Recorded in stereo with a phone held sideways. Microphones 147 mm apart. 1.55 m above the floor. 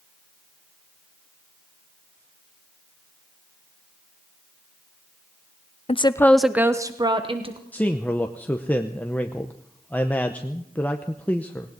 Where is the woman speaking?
40° left (ahead or behind), 0.6 m; by 7.6 s 35° right (ahead or behind), 1.4 m.